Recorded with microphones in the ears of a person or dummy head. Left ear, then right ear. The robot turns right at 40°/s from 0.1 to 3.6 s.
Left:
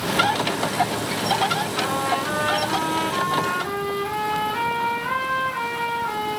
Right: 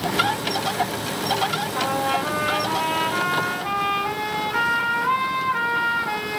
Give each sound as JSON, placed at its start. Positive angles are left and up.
{"t": 1.8, "sound": "a trumpet", "azimuth_deg": -100, "distance_m": 7.0}